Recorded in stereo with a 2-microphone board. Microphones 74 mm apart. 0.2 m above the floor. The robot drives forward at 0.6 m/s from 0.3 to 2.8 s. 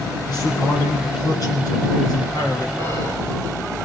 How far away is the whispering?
About 8.5 m.